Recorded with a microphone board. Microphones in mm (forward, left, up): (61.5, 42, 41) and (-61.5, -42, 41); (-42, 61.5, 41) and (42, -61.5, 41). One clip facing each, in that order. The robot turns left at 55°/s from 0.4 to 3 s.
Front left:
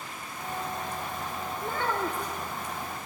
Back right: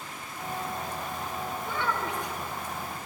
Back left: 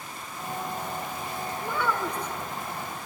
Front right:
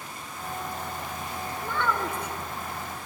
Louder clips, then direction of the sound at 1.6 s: Front left 3 dB, even; 55° left.